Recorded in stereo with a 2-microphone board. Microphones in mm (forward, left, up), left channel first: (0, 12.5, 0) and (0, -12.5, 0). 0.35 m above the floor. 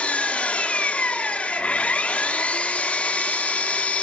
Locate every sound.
0.0 s an engine running: 80° left, 1.2 m